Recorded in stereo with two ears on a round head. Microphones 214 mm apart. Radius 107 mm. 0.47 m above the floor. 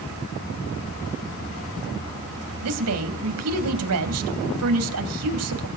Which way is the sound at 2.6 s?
70° right (ahead or behind).